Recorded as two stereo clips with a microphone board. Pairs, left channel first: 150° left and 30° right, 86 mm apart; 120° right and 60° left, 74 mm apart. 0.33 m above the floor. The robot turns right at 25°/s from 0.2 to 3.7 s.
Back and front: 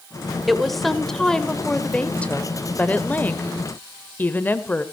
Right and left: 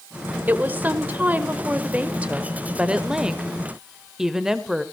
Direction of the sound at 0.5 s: 55° left.